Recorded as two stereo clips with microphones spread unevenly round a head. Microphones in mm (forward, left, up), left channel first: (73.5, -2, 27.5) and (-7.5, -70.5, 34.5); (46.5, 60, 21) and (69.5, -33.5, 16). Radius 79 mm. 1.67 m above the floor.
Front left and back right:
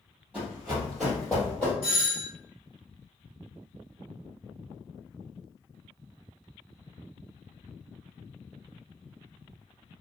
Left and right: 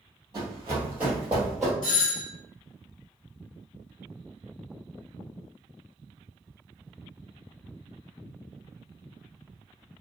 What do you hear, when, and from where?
0.3 s running footsteps: 85° right, 1.8 m; by 1.7 s 70° left, 1.6 m
1.8 s a doorbell: 70° left, 1.7 m